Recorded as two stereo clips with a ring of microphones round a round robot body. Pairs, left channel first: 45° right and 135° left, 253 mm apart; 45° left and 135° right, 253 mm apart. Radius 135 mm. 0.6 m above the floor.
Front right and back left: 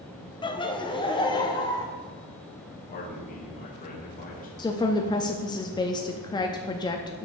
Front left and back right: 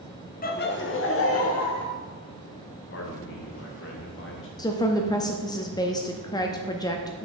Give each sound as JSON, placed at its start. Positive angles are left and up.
{"t": 0.4, "sound": "laughter", "azimuth_deg": 15, "distance_m": 0.7}
{"t": 2.9, "sound": "a man speaking", "azimuth_deg": 10, "distance_m": 1.6}
{"t": 4.6, "sound": "a woman speaking", "azimuth_deg": -5, "distance_m": 0.6}